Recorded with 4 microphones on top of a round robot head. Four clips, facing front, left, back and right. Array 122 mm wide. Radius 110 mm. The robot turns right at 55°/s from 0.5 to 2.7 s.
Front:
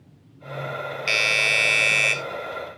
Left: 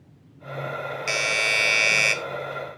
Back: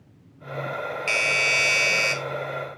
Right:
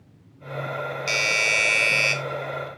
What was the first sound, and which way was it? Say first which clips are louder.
A doorbell: left 1 dB, front 1 dB; 35° left.